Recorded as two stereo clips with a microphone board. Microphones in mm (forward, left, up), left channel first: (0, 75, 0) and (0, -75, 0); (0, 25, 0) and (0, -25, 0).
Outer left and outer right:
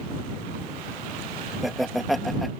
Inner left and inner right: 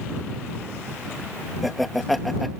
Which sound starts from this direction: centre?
Laughter, at 1.6 s.